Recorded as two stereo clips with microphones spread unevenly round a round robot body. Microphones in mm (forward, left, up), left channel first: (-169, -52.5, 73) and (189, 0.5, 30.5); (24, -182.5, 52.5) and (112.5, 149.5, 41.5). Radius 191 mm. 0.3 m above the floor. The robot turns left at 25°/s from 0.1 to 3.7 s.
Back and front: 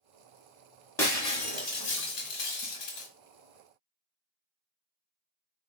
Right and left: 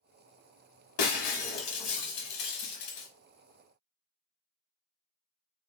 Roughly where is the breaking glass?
Right.